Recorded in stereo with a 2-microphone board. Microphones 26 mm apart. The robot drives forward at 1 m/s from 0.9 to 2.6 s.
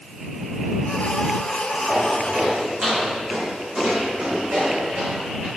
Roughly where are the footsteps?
Right.